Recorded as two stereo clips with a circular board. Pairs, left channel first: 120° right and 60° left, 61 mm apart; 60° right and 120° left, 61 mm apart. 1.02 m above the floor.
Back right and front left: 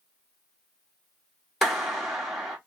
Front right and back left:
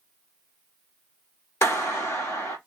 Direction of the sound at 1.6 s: 30° right.